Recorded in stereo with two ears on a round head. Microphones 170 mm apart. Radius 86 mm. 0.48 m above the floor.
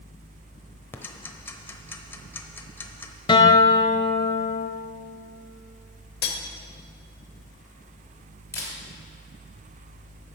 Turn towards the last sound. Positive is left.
turn(degrees=15)  # may be behind; listen again after turning